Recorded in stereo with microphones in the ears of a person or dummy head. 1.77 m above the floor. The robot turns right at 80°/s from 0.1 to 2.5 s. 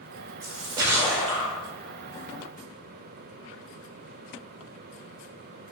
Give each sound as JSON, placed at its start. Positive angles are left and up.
{"t": 0.4, "sound": "a splash", "azimuth_deg": -55, "distance_m": 0.8}